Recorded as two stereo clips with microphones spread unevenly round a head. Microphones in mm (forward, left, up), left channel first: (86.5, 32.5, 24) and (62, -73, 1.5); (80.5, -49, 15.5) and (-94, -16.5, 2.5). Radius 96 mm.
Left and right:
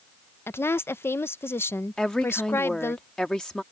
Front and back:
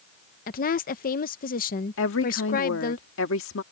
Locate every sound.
0.5 s a woman speaking: 5° left
2.0 s a woman speaking: 10° right